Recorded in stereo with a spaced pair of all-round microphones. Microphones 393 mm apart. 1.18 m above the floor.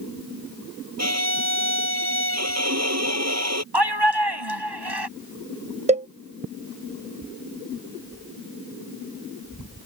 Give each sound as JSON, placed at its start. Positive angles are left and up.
{"t": 1.0, "sound": "a violin", "side_deg": -40}
{"t": 3.7, "sound": "a shout", "side_deg": -85}
{"t": 5.9, "sound": "a cowbell", "side_deg": -15}